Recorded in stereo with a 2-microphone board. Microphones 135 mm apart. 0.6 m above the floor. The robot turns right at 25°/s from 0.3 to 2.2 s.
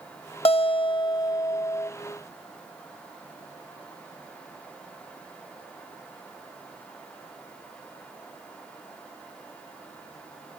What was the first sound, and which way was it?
A guitar, 120° left.